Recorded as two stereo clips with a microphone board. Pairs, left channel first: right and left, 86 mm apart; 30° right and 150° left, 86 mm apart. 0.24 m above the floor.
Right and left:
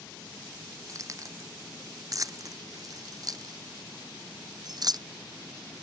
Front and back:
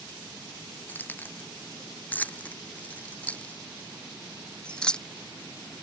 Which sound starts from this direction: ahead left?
Keys jangling, at 0.9 s.